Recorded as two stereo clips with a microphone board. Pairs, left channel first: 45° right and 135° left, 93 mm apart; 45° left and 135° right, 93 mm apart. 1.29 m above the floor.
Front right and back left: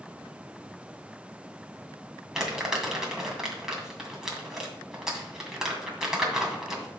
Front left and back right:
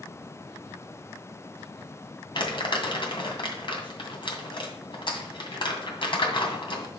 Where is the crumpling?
50° left, 2.5 m.